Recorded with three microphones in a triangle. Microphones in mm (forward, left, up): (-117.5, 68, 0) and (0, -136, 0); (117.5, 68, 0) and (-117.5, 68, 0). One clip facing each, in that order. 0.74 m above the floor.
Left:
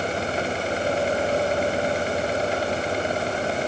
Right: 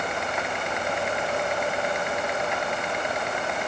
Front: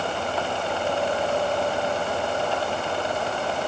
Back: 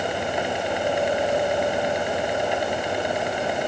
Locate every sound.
Only background noise.